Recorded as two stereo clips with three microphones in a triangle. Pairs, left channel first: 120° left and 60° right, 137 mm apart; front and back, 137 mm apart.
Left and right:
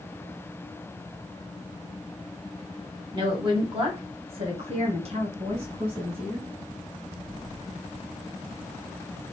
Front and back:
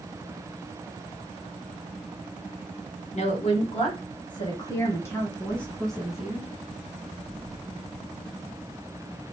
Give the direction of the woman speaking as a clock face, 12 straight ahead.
12 o'clock.